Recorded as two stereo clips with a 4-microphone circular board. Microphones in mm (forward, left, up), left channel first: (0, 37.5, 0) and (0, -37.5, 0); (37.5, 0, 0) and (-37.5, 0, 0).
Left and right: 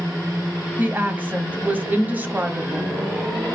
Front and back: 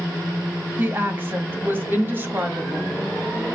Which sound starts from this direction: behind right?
A woman speaking, at 0.8 s.